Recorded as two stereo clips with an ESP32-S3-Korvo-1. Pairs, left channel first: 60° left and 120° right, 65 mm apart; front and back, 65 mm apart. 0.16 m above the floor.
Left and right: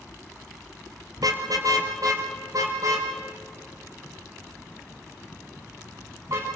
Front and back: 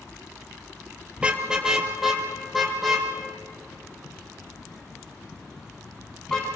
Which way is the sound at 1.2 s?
105° right.